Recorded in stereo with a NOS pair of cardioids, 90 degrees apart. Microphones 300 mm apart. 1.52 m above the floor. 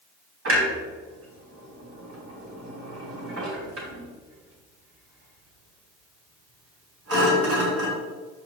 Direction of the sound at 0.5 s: 50° right.